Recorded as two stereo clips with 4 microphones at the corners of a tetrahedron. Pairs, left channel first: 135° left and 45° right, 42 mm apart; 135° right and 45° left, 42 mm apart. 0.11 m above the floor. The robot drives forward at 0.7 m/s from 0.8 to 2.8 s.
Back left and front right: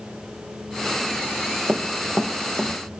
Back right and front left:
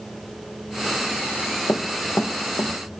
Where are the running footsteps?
95° right, 1.0 m; by 2.7 s 115° right, 1.7 m.